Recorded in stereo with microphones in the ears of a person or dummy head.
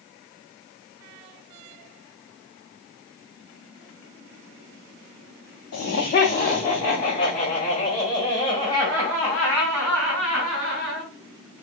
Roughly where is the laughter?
Left.